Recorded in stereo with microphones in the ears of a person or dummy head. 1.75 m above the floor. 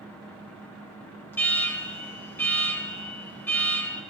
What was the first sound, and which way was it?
An alarm, 10° left (ahead or behind).